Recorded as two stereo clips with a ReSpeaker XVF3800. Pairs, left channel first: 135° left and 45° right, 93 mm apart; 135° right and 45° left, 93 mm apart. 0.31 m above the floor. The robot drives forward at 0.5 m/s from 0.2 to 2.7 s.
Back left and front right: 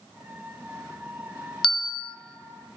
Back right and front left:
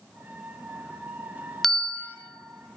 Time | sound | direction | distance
1.6 | a bell | 140° left | 0.5 m